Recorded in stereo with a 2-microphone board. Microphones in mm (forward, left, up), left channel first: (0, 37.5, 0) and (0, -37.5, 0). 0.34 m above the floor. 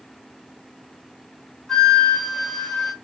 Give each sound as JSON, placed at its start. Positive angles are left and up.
{"t": 1.7, "sound": "a flute", "side_deg": 5, "distance_m": 1.4}